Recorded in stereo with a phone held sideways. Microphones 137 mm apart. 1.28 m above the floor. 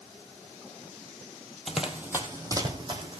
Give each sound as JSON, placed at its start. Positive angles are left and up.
{"t": 1.7, "sound": "running footsteps", "side_deg": 0, "distance_m": 1.8}